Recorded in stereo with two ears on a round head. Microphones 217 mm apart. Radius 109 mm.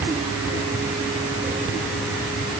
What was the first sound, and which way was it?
Only background noise.